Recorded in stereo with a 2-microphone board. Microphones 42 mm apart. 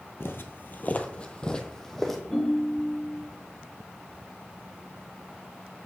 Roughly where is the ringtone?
Centre.